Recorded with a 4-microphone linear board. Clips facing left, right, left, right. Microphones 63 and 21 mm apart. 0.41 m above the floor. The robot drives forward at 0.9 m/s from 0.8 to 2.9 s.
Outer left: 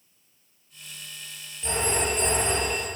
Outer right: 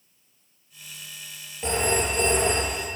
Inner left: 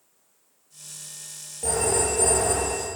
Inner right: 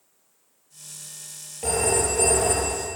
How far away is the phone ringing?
About 6 m.